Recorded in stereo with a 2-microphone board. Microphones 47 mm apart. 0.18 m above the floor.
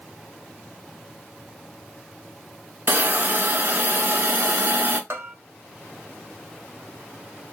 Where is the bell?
50° right (ahead or behind), 0.7 m.